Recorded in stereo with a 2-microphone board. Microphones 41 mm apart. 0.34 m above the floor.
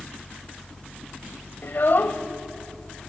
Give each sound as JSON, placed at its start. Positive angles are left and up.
{"t": 1.6, "sound": "a child speaking", "side_deg": 50, "distance_m": 1.2}